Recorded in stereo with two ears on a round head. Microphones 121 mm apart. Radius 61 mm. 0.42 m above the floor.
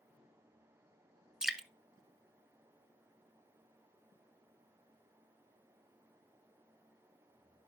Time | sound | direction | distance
1.4 | dripping | 5° right (ahead or behind) | 0.7 m